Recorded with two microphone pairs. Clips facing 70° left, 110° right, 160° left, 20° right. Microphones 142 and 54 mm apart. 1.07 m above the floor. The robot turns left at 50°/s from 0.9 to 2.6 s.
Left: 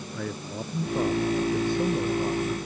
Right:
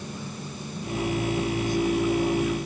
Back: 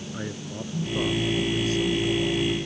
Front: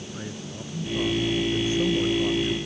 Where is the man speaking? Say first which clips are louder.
Left 3 dB, back 4 dB; 90° left; by 2.5 s 5° left.